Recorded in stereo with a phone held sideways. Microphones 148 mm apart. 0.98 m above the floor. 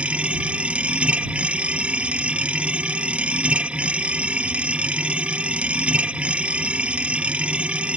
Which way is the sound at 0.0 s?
5° right (ahead or behind).